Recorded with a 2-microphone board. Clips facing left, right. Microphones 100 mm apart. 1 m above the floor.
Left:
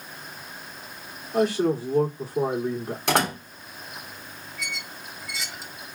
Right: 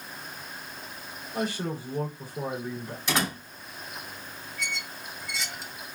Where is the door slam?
70° left (ahead or behind), 2.5 m.